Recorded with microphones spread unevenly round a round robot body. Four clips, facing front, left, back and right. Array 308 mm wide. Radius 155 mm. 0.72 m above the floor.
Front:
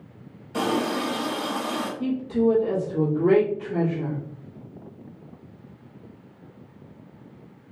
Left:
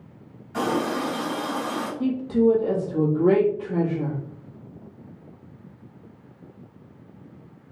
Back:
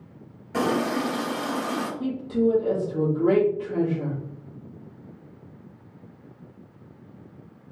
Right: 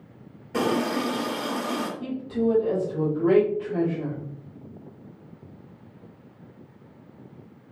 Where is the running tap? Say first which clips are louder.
Even, back 1 dB; 110° right, 1.3 m.